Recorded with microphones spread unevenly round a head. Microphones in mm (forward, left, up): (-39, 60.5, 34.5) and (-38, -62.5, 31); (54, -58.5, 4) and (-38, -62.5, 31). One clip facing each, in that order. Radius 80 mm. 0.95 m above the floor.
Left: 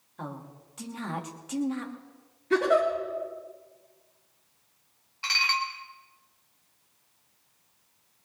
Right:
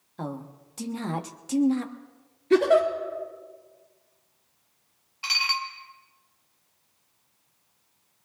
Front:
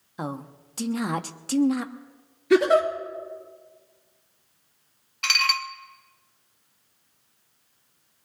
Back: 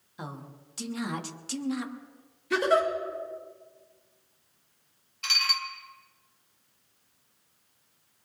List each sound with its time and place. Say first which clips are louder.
0.2 s a woman speaking: right 5 dB, front 8 dB; 30° right, 1.1 m
2.5 s a giggle: right 4 dB, front 6 dB; 20° right, 3 m
5.2 s dishes clattering: left 1 dB, front 6 dB; 10° right, 1.0 m